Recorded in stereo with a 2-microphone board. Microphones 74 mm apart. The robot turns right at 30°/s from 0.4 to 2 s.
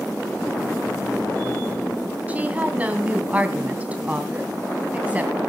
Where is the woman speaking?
20° right (ahead or behind), 3 m.